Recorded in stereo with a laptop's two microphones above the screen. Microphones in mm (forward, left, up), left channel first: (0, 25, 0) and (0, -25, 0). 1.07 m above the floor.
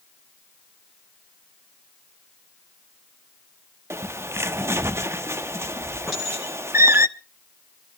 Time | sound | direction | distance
3.9 | a bird | 60° right (ahead or behind) | 0.6 m
6.1 | a clink | 5° left (ahead or behind) | 9.5 m